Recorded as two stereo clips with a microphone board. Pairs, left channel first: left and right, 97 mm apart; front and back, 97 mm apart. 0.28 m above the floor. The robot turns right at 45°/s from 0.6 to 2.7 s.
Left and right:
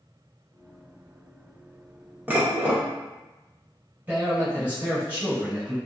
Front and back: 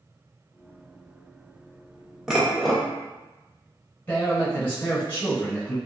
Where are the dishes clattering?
110° right, 0.6 m; by 2.8 s 90° right, 0.6 m.